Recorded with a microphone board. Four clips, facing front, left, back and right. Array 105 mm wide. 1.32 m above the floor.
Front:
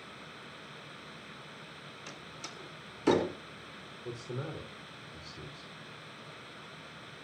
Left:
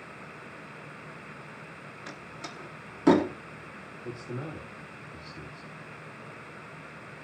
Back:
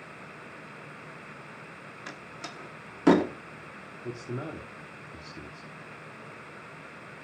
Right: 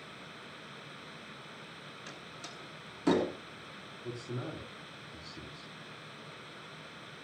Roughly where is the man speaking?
Behind.